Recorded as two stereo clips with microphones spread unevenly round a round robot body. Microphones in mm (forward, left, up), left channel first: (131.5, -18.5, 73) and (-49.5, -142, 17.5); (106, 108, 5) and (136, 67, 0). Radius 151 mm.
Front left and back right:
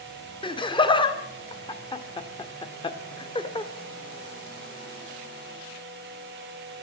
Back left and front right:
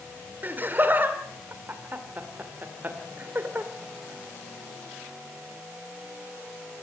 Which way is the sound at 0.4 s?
40° right.